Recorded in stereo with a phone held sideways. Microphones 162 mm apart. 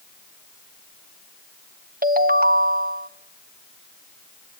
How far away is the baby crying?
I don't hear a baby crying.